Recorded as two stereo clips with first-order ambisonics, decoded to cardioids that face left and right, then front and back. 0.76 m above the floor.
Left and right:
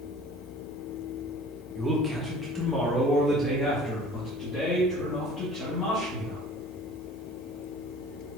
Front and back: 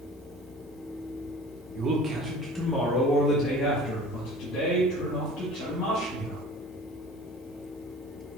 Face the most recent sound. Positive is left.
turn(degrees=15)